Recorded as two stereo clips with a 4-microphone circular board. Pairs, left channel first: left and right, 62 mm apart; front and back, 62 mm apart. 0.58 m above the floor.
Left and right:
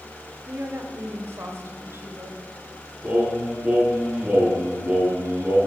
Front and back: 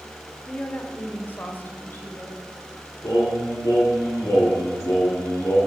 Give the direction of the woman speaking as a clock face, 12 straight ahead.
2 o'clock.